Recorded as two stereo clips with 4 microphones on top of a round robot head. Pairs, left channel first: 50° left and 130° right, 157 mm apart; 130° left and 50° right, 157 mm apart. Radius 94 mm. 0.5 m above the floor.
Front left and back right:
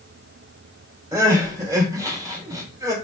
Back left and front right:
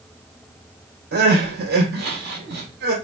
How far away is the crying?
About 2 m.